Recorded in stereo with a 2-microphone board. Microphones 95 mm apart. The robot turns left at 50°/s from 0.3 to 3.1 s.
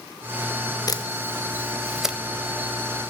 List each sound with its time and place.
0.9 s a camera shutter: 40° left (ahead or behind), 0.9 m; by 2.2 s 10° right (ahead or behind), 0.9 m